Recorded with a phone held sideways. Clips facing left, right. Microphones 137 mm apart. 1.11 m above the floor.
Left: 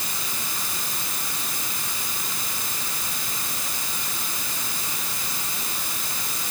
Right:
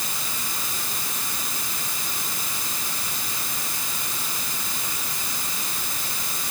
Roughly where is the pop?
I don't hear a pop.